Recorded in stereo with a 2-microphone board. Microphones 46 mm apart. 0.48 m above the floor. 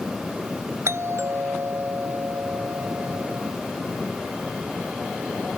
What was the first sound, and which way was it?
A doorbell, 70° right (ahead or behind).